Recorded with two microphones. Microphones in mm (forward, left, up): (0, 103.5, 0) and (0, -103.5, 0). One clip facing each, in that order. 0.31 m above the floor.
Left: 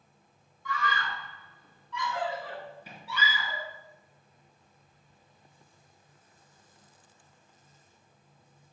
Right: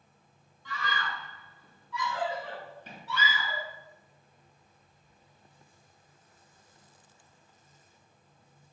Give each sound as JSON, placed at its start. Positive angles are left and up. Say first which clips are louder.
{"t": 0.7, "sound": "a scream", "louder": "left 3 dB", "side_deg": -25, "distance_m": 3.0}